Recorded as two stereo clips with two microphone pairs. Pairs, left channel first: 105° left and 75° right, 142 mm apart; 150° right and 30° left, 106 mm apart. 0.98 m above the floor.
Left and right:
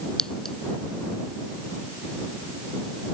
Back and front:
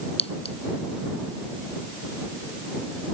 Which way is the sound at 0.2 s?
170° right.